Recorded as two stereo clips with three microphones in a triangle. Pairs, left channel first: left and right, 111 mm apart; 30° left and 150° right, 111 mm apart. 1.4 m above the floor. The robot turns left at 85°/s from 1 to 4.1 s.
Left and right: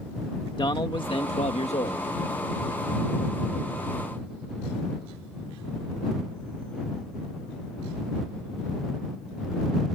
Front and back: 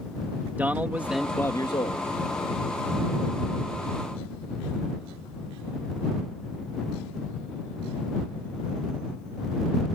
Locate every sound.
0.6 s a man speaking: 135° left; by 2.0 s 50° left